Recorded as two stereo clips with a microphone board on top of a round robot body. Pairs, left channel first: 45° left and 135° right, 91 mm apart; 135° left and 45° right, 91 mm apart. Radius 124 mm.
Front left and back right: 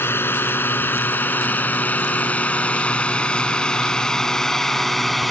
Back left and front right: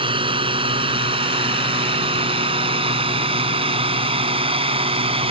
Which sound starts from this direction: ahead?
A drone, at 0.0 s.